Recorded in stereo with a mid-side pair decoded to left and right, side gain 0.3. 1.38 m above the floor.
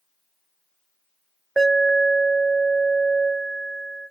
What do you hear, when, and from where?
1.6 s an alarm: 10° right, 2.0 m